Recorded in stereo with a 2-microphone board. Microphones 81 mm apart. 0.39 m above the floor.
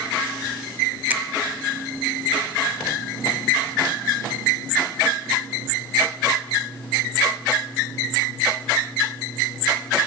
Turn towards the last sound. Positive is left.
turn(degrees=-20)  # may be behind; listen again after turning